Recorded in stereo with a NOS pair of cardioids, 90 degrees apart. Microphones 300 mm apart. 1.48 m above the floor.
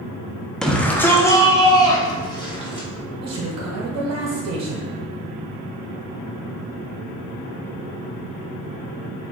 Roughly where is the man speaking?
Ahead right.